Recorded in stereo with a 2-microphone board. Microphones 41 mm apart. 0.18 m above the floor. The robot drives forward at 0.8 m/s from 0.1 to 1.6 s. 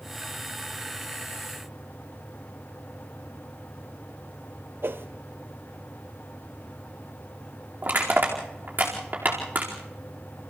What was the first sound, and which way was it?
A whoosh, 65° right (ahead or behind).